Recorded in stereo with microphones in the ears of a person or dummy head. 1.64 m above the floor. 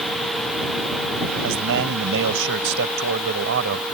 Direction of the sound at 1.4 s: 65° right (ahead or behind).